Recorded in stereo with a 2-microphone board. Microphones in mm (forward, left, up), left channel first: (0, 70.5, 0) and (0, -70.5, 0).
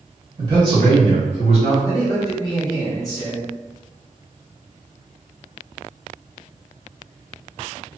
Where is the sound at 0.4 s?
35° right (ahead or behind), 1.7 m; by 1.7 s 50° right (ahead or behind), 2.5 m.